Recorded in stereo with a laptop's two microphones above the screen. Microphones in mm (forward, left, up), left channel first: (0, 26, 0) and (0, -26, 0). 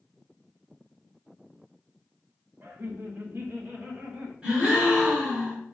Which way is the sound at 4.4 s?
15° right (ahead or behind).